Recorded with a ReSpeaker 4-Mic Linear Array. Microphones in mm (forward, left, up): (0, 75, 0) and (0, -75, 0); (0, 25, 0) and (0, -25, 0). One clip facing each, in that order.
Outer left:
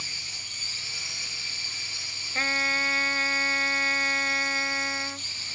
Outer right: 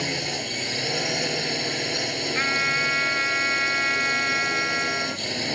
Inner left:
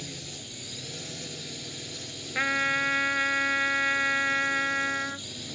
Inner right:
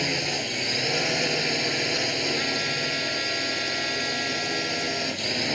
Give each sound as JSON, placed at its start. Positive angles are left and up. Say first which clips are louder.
{"t": 0.0, "sound": "a drone", "louder": "outer right 20 dB, inner right 14 dB", "side_deg": -70}
{"t": 2.4, "sound": "a trumpet", "louder": "outer right 4 dB, inner left 2 dB", "side_deg": 35}